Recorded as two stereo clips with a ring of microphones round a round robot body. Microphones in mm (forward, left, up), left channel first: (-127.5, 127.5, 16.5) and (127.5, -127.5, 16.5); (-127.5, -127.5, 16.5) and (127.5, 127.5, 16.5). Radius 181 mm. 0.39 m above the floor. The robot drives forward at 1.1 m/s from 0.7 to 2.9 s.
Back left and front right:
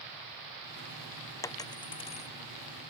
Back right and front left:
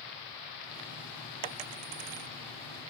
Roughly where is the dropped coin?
Ahead left.